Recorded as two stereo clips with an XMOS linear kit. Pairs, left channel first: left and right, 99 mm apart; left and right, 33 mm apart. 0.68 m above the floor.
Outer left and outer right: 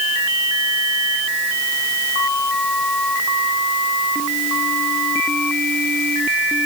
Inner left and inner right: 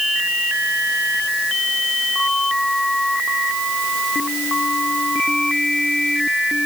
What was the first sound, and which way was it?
Only background noise.